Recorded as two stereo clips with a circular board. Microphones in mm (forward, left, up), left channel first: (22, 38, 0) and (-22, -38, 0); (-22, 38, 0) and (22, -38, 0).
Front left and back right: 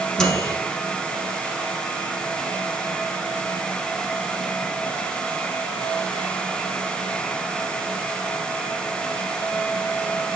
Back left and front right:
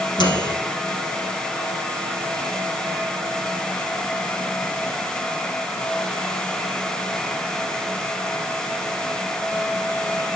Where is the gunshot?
No gunshot in this recording.